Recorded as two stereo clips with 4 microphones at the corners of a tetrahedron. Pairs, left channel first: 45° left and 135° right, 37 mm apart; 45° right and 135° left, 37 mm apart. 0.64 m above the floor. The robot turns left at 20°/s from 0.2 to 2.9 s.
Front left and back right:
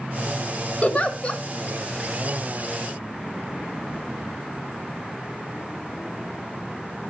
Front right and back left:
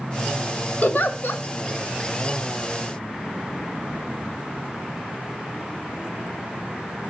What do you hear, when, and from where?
0.8 s a giggle: 10° right, 1.4 m; by 1.4 s 25° right, 1.4 m